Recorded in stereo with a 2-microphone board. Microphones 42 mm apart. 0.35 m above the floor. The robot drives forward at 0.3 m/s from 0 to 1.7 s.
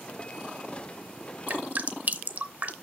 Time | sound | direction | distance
1.5 | dripping | 40° right (ahead or behind) | 0.6 m